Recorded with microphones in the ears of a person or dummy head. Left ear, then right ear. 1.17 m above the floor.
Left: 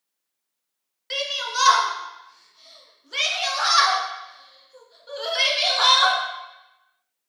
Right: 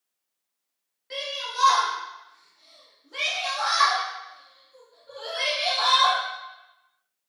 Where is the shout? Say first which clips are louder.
Left 5 dB; 45° left (ahead or behind), 1.2 m.